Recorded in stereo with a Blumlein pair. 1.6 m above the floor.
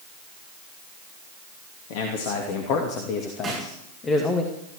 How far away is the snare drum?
About 7.5 m.